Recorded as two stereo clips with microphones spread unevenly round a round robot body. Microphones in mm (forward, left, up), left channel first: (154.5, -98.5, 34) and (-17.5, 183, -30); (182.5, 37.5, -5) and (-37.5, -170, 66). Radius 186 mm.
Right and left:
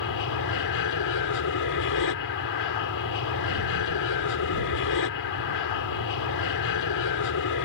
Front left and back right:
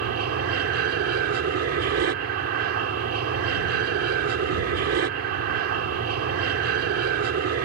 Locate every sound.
0.0 s an aircraft: 100° right